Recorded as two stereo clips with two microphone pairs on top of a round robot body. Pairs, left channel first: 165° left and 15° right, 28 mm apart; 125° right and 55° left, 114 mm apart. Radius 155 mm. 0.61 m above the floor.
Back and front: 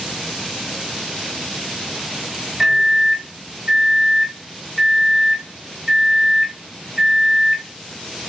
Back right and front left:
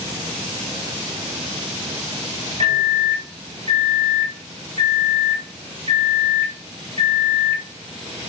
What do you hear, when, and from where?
2.6 s a microwave: 55° left, 1.6 m